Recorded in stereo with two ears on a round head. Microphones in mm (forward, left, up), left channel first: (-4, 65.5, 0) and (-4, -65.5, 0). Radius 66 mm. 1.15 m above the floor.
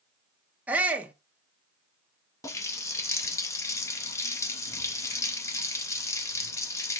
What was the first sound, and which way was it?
A shout, 10° right (ahead or behind).